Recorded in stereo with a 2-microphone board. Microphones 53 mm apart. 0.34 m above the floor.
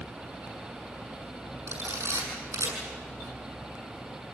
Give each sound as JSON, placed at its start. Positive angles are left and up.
{"t": 1.7, "sound": "a camera shutter", "side_deg": -80, "distance_m": 7.0}